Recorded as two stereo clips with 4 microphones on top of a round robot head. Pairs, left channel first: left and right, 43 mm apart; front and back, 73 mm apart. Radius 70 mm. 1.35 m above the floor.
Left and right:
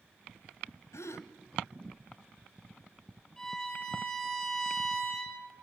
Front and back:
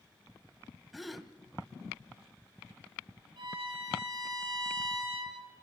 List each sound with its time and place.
0.9 s a gasp: 90° left, 1.1 m
3.4 s a violin: 170° left, 6.5 m